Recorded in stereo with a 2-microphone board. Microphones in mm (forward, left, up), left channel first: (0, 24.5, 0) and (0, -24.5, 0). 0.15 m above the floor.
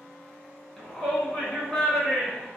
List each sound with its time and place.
0.8 s a shout: 10° left (ahead or behind), 1.1 m